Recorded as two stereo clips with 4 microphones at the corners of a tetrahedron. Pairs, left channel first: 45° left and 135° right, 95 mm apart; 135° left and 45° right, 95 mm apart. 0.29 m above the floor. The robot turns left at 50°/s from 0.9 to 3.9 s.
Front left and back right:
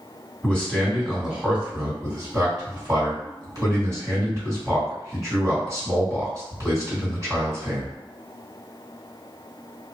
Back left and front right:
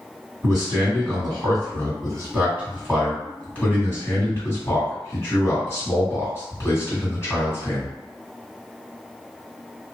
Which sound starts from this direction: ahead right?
A man speaking, at 0.4 s.